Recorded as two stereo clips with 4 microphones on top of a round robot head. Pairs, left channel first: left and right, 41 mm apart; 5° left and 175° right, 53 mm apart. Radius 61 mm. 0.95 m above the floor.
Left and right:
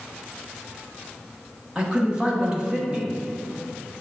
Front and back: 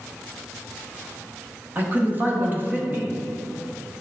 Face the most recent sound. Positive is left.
turn(degrees=-145)